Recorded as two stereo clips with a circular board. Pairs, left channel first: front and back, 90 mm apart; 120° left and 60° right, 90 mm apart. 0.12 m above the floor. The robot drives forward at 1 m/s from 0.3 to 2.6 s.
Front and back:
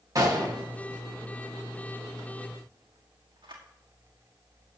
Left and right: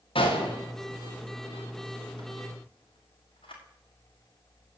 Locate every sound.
0.1 s a gunshot: 130° left, 4.5 m; by 3.6 s 145° left, 6.5 m